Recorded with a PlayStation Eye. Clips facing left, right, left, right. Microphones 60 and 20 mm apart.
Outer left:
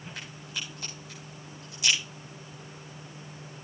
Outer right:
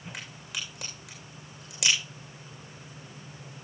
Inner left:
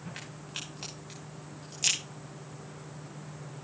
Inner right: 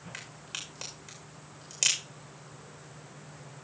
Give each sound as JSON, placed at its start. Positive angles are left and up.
{"t": 0.1, "sound": "a crack", "side_deg": -80, "distance_m": 7.0}